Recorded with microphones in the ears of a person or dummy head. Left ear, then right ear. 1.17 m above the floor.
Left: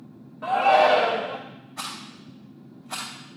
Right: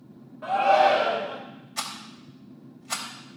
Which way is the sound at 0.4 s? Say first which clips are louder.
Left 1 dB; 10° left (ahead or behind).